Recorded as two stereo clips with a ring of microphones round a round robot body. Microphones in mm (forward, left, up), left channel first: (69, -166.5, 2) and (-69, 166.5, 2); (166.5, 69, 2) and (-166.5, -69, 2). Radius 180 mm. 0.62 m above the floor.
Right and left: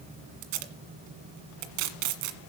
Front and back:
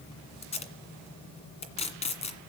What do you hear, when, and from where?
0.4 s tape being pulled: 95° left, 1.7 m